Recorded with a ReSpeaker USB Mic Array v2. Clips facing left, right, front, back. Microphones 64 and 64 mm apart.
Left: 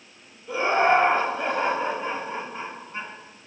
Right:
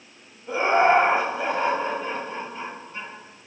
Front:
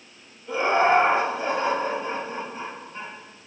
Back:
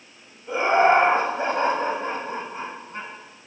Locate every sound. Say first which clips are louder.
0.5 s laughter: right 2 dB, back 2 dB; 120° right, 1.5 m; by 3.1 s 150° left, 3 m